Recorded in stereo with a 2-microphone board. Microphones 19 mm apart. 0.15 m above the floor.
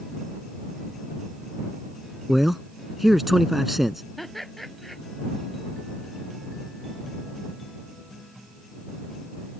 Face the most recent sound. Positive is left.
turn(degrees=5)  # may be behind; listen again after turning